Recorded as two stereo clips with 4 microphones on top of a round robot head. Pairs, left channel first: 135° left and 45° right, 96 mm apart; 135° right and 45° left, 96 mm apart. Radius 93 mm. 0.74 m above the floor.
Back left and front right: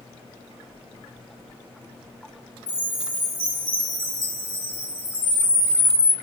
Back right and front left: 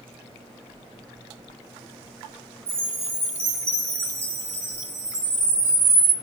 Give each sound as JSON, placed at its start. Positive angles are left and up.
{"t": 2.7, "sound": "a chime", "azimuth_deg": 110, "distance_m": 1.6}
{"t": 5.2, "sound": "a camera shutter", "azimuth_deg": 85, "distance_m": 1.2}